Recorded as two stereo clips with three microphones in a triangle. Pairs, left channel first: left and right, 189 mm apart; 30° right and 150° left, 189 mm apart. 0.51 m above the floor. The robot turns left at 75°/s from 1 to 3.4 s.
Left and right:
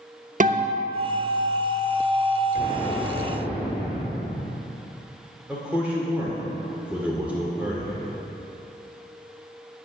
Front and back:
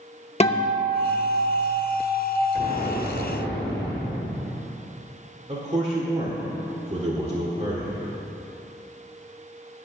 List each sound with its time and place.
0.4 s a guitar: 70° right, 0.8 m; by 2.4 s 175° right, 0.8 m
2.5 s an explosion: 35° left, 3 m; by 4.5 s 25° right, 3 m
5.5 s a man speaking: 170° right, 1.8 m